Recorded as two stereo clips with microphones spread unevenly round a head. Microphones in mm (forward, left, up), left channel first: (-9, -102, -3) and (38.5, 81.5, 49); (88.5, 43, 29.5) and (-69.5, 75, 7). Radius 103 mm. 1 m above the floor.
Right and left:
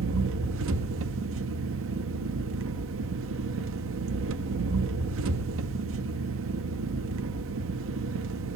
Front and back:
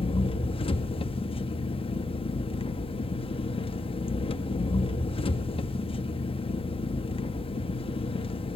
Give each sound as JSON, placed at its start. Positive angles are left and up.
{"t": 0.0, "sound": "an engine running", "azimuth_deg": 50, "distance_m": 1.4}